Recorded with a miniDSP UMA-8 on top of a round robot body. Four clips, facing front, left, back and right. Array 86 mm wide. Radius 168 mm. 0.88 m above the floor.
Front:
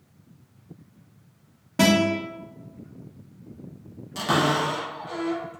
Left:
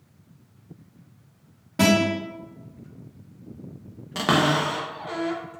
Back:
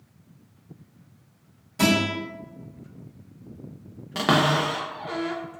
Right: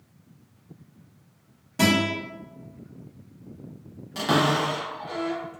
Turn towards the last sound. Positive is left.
turn(degrees=140)